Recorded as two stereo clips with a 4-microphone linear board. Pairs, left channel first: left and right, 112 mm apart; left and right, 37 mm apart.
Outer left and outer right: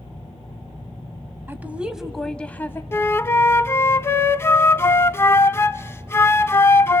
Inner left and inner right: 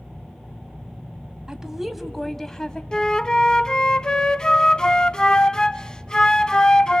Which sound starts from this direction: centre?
A woman speaking, at 1.5 s.